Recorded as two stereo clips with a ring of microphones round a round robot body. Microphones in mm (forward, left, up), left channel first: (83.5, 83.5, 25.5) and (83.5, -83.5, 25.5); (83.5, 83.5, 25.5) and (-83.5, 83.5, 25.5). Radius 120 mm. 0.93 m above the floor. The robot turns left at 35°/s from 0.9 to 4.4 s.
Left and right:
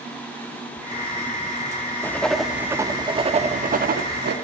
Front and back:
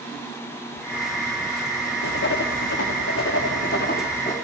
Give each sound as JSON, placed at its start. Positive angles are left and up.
{"t": 2.0, "sound": "writing", "azimuth_deg": 10, "distance_m": 1.0}